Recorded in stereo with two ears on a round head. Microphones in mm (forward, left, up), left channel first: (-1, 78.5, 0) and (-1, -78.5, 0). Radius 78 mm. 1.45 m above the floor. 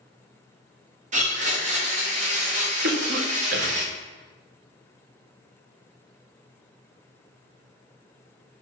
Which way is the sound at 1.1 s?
45° right (ahead or behind).